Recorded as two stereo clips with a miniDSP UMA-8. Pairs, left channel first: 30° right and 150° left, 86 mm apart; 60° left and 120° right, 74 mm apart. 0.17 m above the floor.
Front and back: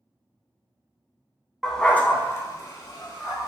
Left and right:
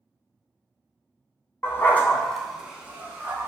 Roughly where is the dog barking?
Ahead left.